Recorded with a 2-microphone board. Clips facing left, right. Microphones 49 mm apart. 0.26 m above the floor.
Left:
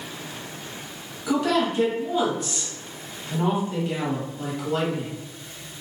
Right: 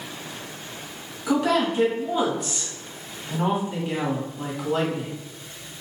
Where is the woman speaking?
5° right (ahead or behind), 1.5 m.